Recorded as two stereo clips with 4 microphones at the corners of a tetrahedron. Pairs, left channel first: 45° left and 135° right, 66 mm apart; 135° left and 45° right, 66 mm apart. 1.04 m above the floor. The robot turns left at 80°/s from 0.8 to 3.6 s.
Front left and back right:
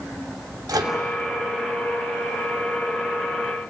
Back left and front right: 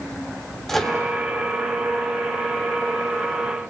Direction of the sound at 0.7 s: 140° right.